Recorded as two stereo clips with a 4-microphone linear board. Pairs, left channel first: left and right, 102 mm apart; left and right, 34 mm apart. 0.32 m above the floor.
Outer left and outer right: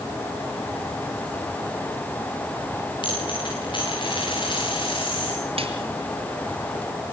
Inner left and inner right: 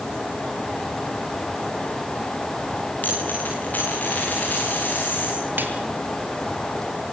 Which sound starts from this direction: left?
A dropped coin, at 3.0 s.